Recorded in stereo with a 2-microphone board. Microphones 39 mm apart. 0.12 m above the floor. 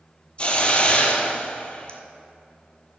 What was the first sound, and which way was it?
A hiss, 30° left (ahead or behind).